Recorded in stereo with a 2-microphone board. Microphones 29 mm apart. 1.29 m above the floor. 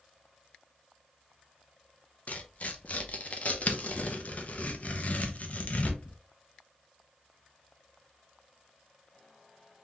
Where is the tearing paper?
50° left (ahead or behind), 0.5 m.